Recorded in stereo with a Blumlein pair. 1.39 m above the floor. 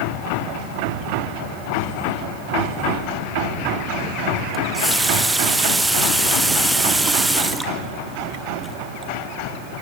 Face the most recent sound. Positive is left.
turn(degrees=-5)